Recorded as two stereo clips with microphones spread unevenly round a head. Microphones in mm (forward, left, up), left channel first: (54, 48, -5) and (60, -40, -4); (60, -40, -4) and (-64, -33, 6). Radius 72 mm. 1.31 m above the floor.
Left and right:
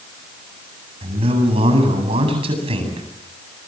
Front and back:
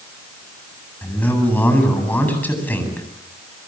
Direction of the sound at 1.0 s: 80° right.